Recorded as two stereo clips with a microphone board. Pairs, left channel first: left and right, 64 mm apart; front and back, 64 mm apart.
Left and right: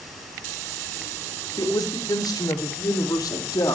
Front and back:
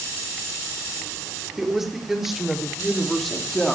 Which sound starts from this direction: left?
A woman speaking, at 1.6 s.